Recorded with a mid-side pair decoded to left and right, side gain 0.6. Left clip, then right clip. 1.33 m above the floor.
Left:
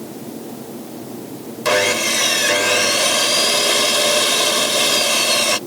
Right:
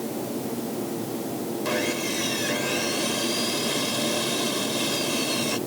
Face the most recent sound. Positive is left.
turn(degrees=55)